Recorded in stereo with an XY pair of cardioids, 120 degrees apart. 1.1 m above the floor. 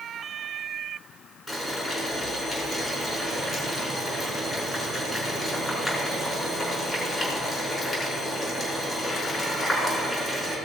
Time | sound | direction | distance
1.5 | boiling | 25° left | 5.5 m